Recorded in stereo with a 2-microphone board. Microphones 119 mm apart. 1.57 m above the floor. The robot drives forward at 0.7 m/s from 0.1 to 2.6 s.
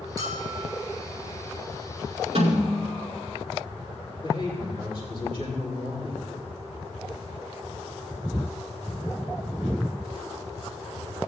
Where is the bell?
35° right (ahead or behind), 4.5 m; by 0.8 s 30° right (ahead or behind), 5 m.